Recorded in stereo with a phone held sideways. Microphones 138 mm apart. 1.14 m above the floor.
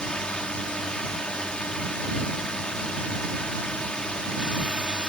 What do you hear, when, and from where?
0.0 s a drone: 5° left (ahead or behind)